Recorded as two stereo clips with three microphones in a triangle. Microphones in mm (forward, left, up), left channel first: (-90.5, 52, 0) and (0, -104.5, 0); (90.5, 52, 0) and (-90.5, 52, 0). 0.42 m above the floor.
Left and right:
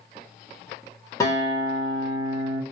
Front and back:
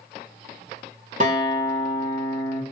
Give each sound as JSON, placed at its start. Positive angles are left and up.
{"t": 1.2, "sound": "a guitar", "azimuth_deg": -175, "distance_m": 1.3}